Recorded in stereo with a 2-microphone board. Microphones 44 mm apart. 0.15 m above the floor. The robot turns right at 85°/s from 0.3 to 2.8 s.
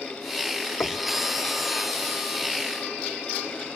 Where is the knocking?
60° left (ahead or behind); by 1.1 s 80° left.